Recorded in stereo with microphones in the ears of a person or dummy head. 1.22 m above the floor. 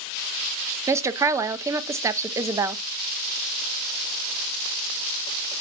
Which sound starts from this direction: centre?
A woman speaking, at 0.9 s.